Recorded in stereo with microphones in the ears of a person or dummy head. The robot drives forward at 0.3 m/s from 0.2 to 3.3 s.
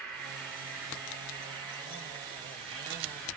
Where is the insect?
5° left (ahead or behind), 0.8 m.